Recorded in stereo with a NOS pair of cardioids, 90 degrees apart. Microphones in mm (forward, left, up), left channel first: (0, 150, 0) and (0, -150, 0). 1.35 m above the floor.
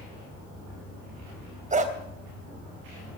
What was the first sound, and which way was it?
A dog barking, 25° right.